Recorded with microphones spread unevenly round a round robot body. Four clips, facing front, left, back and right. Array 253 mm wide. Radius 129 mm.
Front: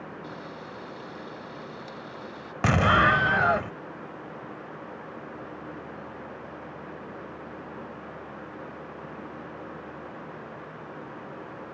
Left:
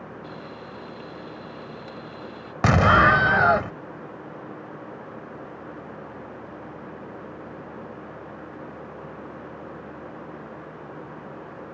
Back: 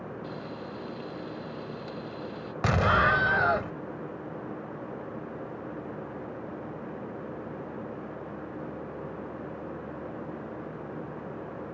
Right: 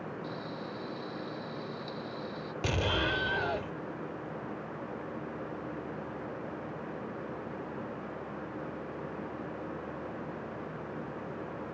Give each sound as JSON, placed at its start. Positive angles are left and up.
{"t": 0.2, "sound": "frying", "azimuth_deg": 125}
{"t": 2.6, "sound": "an explosion", "azimuth_deg": 65}